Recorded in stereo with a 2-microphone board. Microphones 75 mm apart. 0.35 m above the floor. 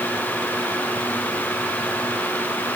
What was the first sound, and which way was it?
Only background noise.